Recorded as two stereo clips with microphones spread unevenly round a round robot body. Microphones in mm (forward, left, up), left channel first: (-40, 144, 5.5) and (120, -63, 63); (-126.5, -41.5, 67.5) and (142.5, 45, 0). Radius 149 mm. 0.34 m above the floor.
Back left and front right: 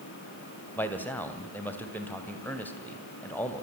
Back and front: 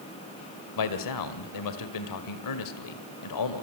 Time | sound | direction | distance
0.8 | a man speaking | 160° right | 2 m